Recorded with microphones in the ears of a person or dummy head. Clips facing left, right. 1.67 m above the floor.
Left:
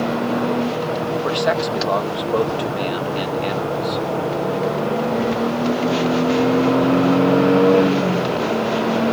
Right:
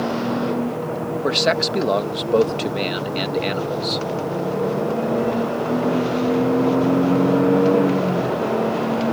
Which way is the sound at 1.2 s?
30° right (ahead or behind).